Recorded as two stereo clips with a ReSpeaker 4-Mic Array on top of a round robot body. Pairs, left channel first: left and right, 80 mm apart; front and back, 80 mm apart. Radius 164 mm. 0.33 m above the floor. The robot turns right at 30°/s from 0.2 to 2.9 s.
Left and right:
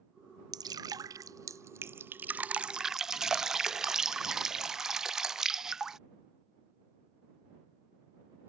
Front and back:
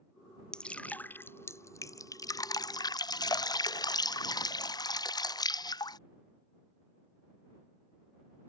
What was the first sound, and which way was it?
Dripping, 80° right.